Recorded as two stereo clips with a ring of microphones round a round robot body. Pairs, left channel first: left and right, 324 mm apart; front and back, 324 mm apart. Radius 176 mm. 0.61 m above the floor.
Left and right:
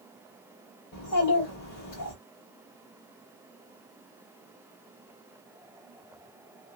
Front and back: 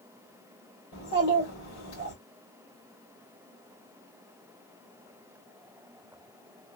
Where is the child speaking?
50° left, 2 m.